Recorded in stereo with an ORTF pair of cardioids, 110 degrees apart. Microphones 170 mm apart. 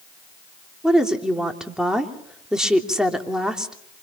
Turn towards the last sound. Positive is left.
turn(degrees=-5)